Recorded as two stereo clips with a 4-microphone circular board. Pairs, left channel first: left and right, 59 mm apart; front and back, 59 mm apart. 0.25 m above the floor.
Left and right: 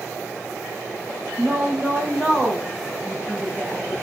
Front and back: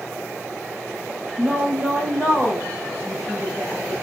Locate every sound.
1.4 s a woman speaking: 140° right, 1.4 m; by 3.9 s 40° left, 1.5 m